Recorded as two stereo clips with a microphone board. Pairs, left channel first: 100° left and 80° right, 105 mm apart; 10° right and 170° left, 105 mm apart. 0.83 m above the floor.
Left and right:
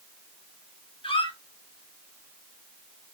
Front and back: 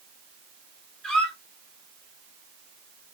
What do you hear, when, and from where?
1.0 s a squeak: 70° left, 0.8 m